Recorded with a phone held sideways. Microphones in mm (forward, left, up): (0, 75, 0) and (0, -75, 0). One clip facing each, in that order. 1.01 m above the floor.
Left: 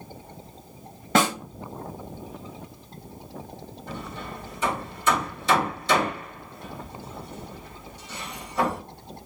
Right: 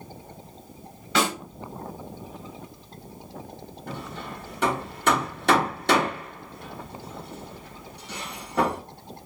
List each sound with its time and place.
1.1 s a snare drum: 50° left (ahead or behind), 0.9 m
3.9 s hammering: 65° right (ahead or behind), 1.0 m